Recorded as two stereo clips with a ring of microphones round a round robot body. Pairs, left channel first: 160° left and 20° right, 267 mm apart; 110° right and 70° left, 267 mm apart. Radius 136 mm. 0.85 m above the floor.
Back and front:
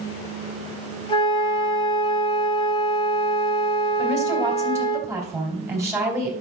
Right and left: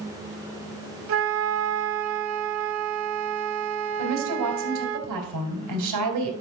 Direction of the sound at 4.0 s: 55° left.